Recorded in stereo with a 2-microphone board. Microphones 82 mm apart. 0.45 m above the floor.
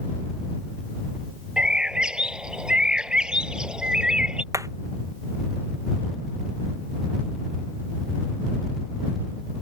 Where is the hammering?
45° right (ahead or behind).